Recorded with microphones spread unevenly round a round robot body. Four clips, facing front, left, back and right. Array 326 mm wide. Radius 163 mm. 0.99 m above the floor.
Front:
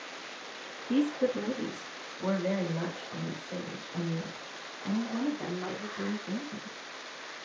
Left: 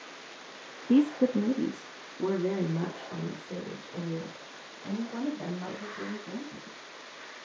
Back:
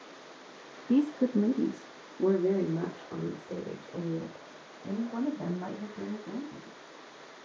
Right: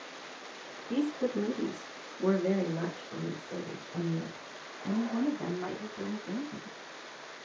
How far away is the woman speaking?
About 0.7 m.